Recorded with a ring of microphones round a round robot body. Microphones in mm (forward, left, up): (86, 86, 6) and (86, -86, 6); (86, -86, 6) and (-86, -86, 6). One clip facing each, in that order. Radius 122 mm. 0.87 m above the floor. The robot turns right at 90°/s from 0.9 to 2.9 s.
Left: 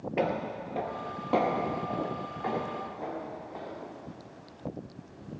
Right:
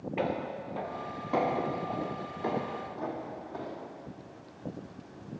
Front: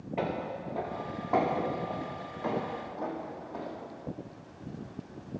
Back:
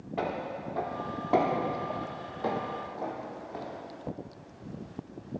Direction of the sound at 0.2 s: 70° left.